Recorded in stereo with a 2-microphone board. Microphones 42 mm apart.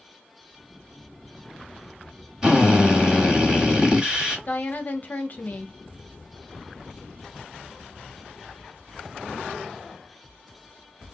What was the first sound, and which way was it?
A drill, 20° right (ahead or behind).